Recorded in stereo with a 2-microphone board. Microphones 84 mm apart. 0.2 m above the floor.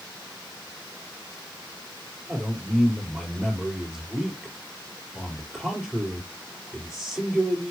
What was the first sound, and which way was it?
A man speaking, 5° right (ahead or behind).